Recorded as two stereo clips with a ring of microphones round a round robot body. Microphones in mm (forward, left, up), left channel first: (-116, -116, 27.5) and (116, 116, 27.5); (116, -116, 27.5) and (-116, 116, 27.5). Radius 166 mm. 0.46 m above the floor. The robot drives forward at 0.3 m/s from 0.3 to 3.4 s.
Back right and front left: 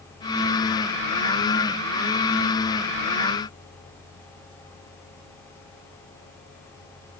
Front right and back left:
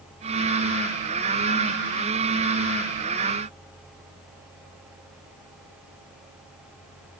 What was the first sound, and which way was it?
Only background noise.